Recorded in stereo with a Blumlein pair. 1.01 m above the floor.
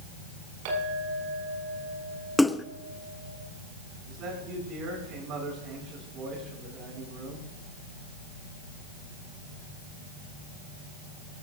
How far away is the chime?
I don't hear a chime.